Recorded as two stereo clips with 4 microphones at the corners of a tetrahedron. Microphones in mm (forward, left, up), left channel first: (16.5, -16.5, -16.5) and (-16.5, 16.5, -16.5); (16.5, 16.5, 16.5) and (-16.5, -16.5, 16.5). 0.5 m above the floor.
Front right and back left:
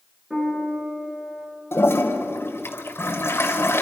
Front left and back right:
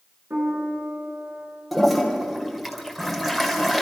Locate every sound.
0.3 s a piano: 150° right, 8.5 m
1.7 s a toilet flushing: 45° right, 2 m